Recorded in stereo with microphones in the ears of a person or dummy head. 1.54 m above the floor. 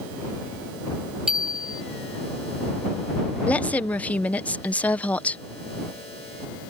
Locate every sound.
1.3 s a bicycle bell: 5° right (ahead or behind)
3.5 s a woman speaking: 10° left (ahead or behind)